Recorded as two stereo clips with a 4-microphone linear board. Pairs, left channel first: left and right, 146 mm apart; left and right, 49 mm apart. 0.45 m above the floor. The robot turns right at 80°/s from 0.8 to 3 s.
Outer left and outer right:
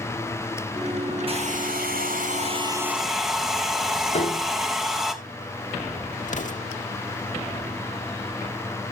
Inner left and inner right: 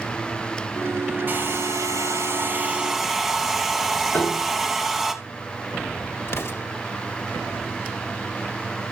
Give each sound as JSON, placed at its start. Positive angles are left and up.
{"t": 1.3, "sound": "a hair dryer", "azimuth_deg": -140, "distance_m": 3.0}
{"t": 4.1, "sound": "a piano", "side_deg": 50, "distance_m": 4.0}
{"t": 6.3, "sound": "an explosion", "side_deg": 60, "distance_m": 1.4}